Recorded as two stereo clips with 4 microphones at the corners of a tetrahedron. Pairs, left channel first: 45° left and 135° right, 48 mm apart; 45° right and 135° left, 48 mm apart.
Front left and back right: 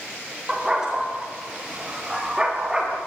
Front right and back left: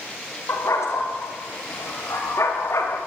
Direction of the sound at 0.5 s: 55° right.